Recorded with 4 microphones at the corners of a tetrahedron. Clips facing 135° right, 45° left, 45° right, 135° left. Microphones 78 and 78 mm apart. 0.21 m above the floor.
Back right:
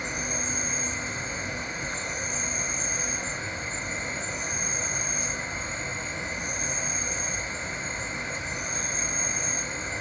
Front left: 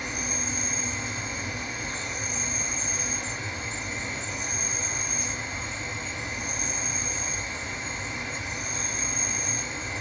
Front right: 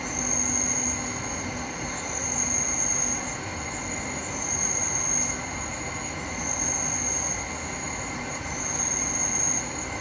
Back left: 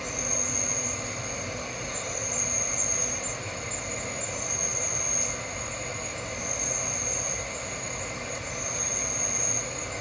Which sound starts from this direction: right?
An insect, at 0.0 s.